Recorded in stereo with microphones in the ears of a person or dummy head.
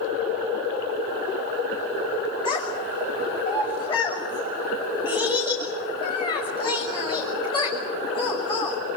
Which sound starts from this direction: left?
A child speaking, at 2.5 s.